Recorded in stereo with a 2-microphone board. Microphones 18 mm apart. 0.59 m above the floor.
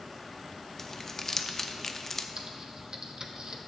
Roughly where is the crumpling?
Centre.